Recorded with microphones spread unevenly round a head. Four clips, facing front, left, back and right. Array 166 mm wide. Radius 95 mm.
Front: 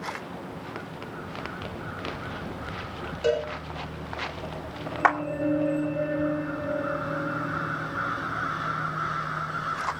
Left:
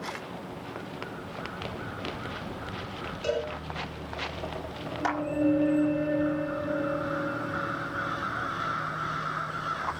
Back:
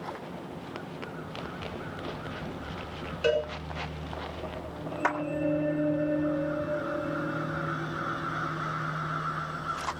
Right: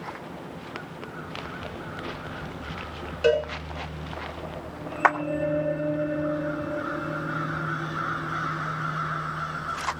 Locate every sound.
3.2 s a cowbell: 80° right, 5 m
5.0 s a clap: 50° right, 2.5 m